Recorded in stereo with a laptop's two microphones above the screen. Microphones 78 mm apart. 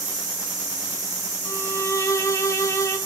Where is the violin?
35° left (ahead or behind), 1.2 m.